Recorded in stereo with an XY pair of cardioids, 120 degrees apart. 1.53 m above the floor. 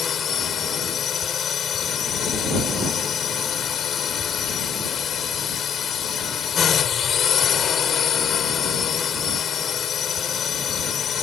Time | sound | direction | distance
0.0 | a drone | 50° left | ?